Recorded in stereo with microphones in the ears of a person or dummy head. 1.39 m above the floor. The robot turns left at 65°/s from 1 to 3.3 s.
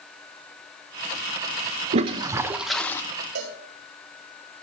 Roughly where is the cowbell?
Right.